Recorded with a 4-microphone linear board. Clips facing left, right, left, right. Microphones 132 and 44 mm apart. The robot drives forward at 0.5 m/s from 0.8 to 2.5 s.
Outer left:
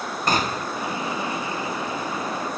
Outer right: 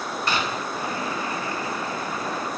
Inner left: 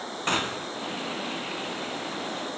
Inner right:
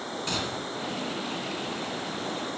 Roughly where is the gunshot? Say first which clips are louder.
Outer left 4 dB, inner left 6 dB; left.